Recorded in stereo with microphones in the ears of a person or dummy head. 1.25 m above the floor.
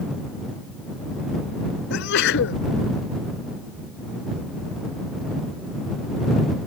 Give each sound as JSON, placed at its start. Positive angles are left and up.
{"t": 1.9, "sound": "a sneeze", "side_deg": 65}